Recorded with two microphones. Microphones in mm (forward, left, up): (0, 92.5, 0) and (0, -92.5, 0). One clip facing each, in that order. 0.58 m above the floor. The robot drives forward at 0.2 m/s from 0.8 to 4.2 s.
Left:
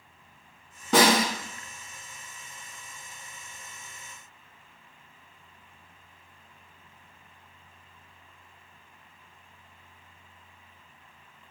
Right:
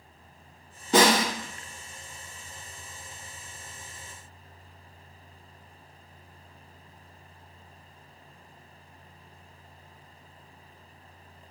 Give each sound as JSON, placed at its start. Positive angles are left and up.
{"t": 0.9, "sound": "a snare drum", "side_deg": 90, "distance_m": 1.9}